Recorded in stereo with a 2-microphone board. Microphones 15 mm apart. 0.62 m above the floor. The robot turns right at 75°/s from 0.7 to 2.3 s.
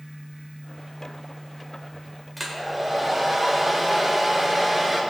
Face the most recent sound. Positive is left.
turn(degrees=-10)  # may be behind; listen again after turning